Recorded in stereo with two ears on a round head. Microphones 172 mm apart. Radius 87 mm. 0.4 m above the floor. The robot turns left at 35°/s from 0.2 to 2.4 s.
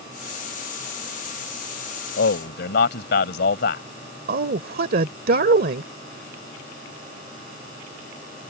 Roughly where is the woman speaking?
Right.